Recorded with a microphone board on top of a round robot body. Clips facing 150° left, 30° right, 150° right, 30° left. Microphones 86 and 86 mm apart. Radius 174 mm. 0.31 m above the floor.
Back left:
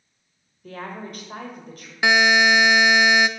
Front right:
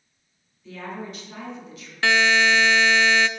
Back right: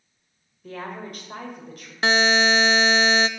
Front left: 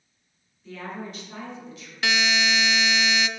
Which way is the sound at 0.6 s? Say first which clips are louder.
Even, back right 1 dB; straight behind.